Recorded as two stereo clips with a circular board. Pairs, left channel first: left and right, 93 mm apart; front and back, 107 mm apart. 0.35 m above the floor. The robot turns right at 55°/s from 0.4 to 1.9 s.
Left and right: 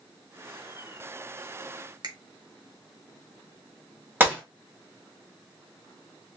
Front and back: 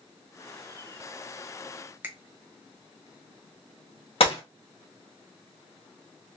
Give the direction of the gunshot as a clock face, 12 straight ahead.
1 o'clock.